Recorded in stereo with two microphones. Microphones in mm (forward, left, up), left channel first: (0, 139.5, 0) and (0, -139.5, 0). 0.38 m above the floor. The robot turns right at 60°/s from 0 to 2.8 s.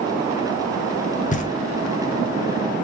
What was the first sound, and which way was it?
Knocking, 30° left (ahead or behind).